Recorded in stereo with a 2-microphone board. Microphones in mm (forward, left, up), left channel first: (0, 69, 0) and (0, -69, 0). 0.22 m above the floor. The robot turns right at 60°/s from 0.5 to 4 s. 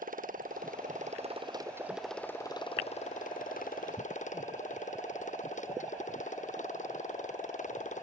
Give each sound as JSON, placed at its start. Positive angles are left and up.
{"t": 0.0, "sound": "a motorcycle", "azimuth_deg": -95}